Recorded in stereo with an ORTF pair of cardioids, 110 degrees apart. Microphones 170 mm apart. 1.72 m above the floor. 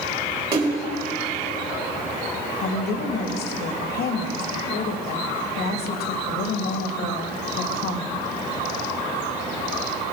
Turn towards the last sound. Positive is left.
turn(degrees=65)